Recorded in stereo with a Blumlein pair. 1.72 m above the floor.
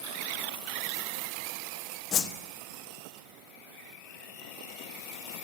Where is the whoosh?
25° left, 0.7 m.